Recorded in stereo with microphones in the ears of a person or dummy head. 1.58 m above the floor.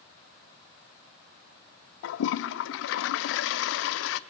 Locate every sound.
2.0 s a toilet flushing: 70° left (ahead or behind), 0.6 m